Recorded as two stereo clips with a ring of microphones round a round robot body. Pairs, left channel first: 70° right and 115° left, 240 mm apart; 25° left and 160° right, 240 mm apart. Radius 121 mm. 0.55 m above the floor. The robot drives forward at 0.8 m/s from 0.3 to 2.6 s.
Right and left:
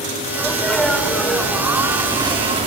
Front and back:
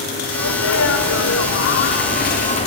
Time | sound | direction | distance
0.3 | a sneeze | 15° left | 2.5 m